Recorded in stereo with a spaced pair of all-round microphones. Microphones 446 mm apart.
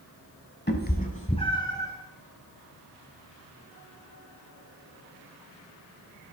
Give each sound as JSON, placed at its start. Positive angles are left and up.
{"t": 0.7, "sound": "a cat meowing", "side_deg": 25, "distance_m": 0.9}